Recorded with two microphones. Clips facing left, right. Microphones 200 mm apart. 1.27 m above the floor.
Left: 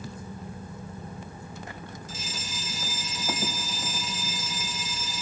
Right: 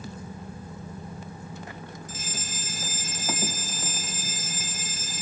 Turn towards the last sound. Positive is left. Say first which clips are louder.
# even
turn(degrees=-50)  # may be behind; listen again after turning